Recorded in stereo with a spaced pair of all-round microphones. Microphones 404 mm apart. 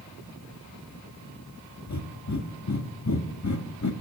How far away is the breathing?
About 1.0 m.